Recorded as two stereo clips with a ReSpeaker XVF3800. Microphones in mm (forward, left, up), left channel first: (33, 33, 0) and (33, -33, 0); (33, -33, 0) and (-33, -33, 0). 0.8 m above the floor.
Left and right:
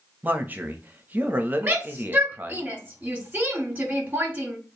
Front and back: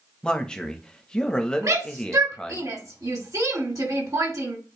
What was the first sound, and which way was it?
A man speaking, 65° right.